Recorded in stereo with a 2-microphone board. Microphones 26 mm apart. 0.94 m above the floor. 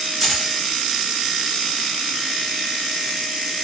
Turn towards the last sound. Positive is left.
turn(degrees=-5)  # may be behind; listen again after turning